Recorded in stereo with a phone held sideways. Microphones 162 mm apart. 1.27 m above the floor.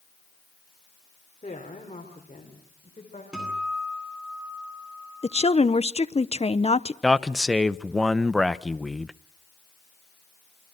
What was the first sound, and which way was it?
A woman speaking, 45° left (ahead or behind).